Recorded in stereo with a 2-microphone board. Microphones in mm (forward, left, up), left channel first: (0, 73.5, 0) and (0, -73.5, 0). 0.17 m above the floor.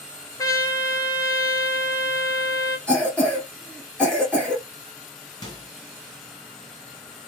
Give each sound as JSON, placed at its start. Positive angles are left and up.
{"t": 0.4, "sound": "a trumpet", "side_deg": 25, "distance_m": 1.0}
{"t": 2.9, "sound": "a cough", "side_deg": 5, "distance_m": 2.5}
{"t": 5.4, "sound": "a microwave", "side_deg": 30, "distance_m": 2.5}